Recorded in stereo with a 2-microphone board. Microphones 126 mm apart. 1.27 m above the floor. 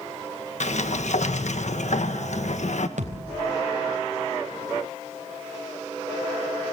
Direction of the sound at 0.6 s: 65° left (ahead or behind).